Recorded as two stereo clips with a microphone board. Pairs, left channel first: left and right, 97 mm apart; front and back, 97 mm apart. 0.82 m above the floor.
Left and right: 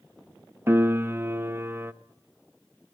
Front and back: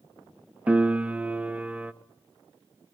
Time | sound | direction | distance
0.7 | a piano | 120° right | 0.8 m